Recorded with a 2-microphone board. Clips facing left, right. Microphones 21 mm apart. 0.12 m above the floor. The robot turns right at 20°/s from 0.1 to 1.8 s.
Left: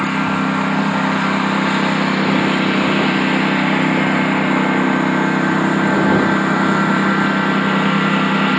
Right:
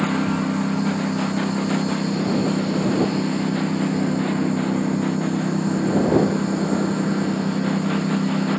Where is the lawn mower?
35° left; by 8.6 s 70° left.